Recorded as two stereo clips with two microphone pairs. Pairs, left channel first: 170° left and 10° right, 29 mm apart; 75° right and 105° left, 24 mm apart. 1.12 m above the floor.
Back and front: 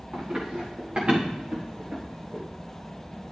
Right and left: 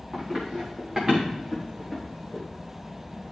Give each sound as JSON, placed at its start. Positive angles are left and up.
{"t": 0.1, "sound": "running footsteps", "azimuth_deg": 30, "distance_m": 4.5}